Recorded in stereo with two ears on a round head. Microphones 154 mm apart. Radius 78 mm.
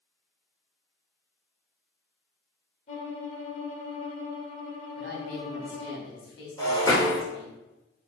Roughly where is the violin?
Left.